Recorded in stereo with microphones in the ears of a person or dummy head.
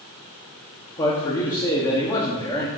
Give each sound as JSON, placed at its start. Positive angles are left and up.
{"t": 1.0, "sound": "a man speaking", "side_deg": 25, "distance_m": 1.1}